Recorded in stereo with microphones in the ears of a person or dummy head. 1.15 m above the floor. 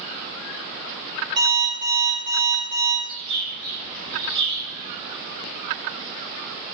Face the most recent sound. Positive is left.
turn(degrees=-65)  # may be behind; listen again after turning